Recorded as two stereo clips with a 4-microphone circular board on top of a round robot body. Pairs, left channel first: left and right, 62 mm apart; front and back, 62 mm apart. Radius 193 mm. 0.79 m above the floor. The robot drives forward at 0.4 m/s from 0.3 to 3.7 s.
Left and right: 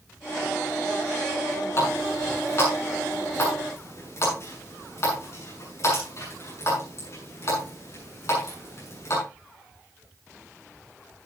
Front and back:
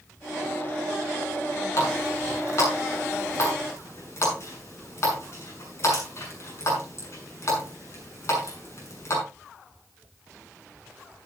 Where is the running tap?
40° left, 7.5 m; by 9.2 s 45° left, 7 m.